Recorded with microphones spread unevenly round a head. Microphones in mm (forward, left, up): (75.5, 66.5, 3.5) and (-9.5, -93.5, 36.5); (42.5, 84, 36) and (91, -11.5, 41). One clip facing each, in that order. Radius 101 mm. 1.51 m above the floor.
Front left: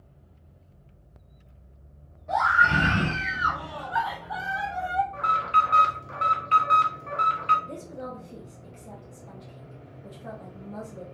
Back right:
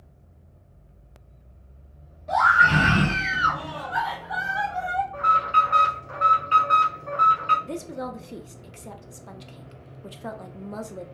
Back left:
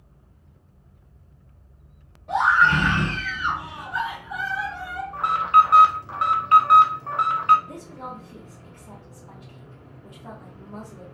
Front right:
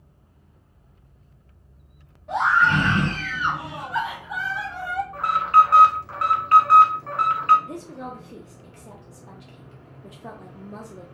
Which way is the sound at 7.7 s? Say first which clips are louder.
Back right 5 dB, front right 2 dB; 110° right.